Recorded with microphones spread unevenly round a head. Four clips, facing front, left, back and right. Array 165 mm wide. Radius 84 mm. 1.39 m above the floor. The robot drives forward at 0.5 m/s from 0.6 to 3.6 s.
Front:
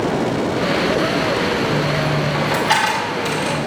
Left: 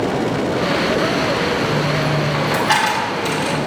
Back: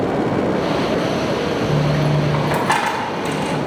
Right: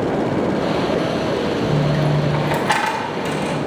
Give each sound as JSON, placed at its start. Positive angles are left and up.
{"t": 1.6, "sound": "a dropped coin", "azimuth_deg": -120, "distance_m": 1.0}